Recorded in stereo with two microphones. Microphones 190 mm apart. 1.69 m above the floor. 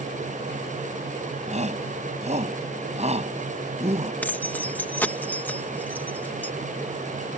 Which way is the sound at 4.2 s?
10° left (ahead or behind).